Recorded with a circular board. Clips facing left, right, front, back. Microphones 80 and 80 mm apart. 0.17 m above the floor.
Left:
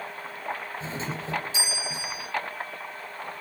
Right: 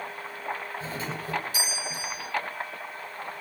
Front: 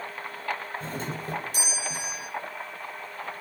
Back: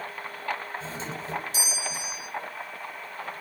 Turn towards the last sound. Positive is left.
turn(degrees=25)